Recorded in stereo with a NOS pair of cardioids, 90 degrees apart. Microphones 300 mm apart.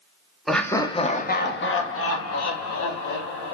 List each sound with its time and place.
0.5 s laughter: straight ahead, 0.9 m; by 3.5 s 70° left, 1.8 m